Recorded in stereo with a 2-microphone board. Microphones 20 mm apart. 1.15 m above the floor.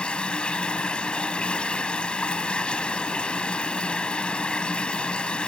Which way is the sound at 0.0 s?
55° left (ahead or behind).